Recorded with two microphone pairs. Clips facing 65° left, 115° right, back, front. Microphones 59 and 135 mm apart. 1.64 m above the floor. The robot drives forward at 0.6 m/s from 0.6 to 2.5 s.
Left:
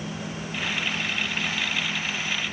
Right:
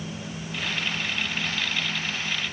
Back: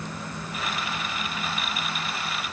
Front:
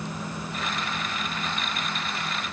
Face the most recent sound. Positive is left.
No sound to turn to.